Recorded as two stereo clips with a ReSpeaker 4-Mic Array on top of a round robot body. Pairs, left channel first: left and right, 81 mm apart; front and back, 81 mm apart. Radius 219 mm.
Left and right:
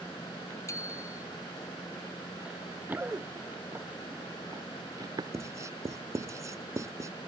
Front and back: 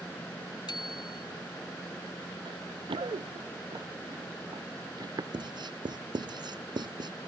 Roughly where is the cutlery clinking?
No cutlery clinking in this recording.